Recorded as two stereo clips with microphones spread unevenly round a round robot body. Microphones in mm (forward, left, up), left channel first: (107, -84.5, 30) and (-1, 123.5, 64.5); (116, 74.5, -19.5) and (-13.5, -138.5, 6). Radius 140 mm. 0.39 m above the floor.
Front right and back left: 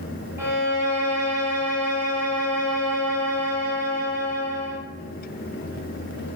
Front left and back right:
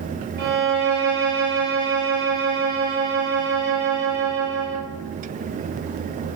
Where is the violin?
155° right, 0.9 m.